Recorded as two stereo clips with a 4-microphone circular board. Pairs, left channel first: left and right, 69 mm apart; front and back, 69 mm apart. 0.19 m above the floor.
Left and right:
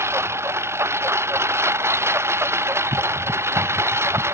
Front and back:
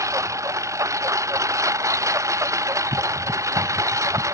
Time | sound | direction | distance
0.0 | a lawn mower | 140° right | ?